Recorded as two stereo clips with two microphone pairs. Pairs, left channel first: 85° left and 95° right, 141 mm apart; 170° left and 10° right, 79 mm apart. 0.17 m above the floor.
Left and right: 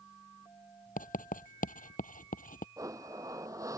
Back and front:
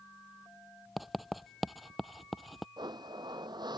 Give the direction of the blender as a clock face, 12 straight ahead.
1 o'clock.